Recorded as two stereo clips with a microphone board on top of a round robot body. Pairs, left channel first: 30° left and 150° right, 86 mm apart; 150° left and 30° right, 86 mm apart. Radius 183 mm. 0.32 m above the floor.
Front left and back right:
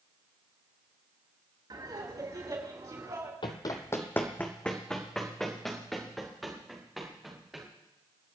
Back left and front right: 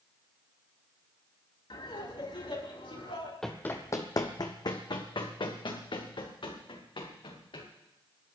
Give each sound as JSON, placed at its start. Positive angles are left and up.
{"t": 1.7, "sound": "laughter", "azimuth_deg": 175, "distance_m": 4.5}
{"t": 3.4, "sound": "running footsteps", "azimuth_deg": 65, "distance_m": 0.7}